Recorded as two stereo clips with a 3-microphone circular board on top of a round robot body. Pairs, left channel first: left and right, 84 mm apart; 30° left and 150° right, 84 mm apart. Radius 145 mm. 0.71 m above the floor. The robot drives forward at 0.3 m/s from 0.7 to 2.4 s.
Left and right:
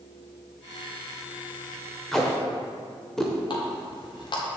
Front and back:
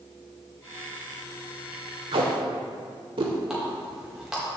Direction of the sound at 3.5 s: 125° left.